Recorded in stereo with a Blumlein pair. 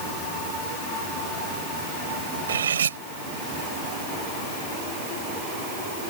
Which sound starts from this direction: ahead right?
Cutlery clinking, at 2.5 s.